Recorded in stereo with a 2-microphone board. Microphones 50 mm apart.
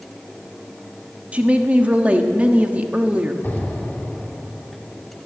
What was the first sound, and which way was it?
A woman speaking, 25° right (ahead or behind).